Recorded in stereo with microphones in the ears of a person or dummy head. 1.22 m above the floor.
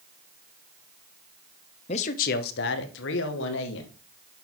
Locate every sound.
1.9 s a man speaking: 30° left (ahead or behind), 0.6 m; by 3.9 s 65° left (ahead or behind), 1.9 m